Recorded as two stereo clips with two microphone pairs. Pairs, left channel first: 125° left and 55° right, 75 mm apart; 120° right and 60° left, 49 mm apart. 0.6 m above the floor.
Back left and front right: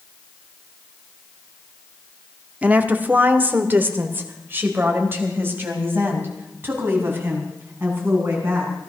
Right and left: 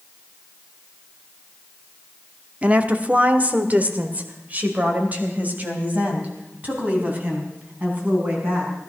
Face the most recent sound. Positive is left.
turn(degrees=5)